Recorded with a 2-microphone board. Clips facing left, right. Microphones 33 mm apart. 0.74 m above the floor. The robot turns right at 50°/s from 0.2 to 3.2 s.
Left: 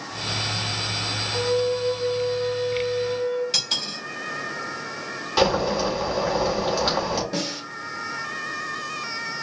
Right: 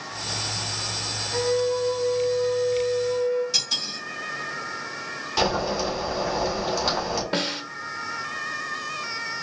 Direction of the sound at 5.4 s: 20° left (ahead or behind).